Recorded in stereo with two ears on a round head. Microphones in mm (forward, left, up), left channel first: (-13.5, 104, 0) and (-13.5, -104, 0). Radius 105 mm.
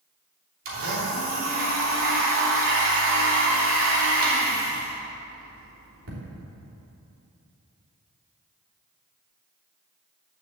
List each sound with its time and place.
0.7 s a blender: 65° right (ahead or behind), 3 m